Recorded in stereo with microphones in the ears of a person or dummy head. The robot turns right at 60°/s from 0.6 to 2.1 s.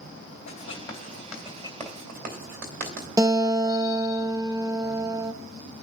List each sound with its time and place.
0.5 s writing: 45° left (ahead or behind), 2.5 m; by 3.1 s 45° right (ahead or behind), 2.5 m
3.2 s a guitar: 20° right (ahead or behind), 0.5 m